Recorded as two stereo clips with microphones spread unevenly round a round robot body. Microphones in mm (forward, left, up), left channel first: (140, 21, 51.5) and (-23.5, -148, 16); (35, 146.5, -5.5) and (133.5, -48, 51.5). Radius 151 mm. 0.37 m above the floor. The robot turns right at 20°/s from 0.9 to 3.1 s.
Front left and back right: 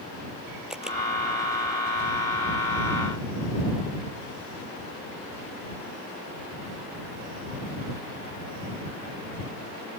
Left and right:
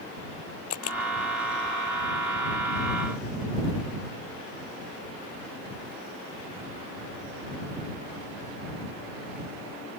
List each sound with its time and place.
0.7 s a camera shutter: 135° left; by 1.0 s 140° left